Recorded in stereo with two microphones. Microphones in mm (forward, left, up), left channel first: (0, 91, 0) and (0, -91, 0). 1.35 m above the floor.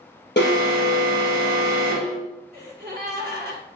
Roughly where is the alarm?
Left.